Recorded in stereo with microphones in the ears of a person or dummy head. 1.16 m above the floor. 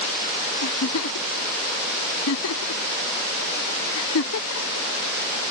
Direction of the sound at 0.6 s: 80° left.